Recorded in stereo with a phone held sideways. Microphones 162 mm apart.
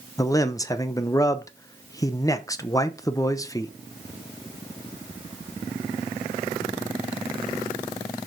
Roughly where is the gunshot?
I don't hear a gunshot.